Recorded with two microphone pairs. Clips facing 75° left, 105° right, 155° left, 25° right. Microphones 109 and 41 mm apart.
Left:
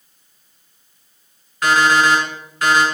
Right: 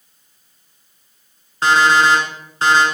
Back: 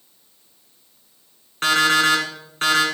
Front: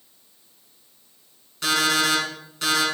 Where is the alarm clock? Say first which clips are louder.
Right 1 dB, back 5 dB; 165° right, 1.7 m.